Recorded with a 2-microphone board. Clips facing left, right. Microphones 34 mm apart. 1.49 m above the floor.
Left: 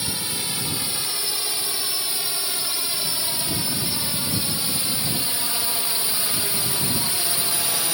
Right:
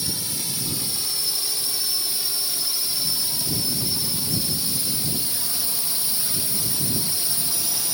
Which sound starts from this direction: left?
A drone, at 0.0 s.